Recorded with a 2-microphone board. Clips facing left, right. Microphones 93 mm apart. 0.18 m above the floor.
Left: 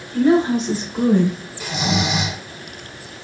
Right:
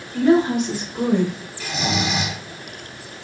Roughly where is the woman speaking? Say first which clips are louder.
Left 1 dB; left.